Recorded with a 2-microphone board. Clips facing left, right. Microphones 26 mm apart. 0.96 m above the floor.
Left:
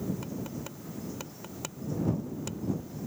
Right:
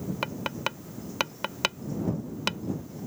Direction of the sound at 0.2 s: 65° right (ahead or behind).